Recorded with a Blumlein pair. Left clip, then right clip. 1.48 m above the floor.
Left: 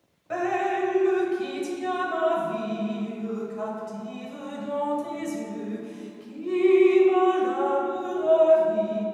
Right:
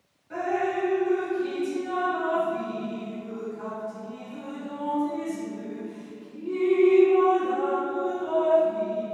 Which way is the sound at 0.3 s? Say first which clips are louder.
Left 1 dB; 35° left.